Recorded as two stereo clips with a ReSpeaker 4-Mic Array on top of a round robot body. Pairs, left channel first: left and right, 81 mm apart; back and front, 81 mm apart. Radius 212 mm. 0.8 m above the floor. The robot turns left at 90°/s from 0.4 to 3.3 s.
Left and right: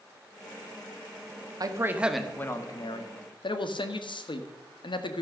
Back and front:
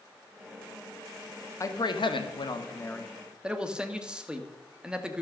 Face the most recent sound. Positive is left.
turn(degrees=80)